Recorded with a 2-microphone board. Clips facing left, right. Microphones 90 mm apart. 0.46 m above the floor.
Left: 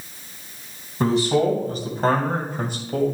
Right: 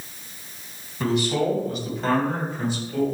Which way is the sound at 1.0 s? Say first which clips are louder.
Left 4 dB; 35° left (ahead or behind).